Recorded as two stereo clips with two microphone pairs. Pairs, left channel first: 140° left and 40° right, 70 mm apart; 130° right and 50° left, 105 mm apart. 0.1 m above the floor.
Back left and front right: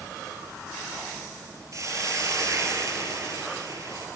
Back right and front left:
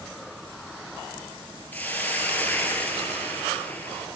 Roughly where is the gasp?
No gasp in this recording.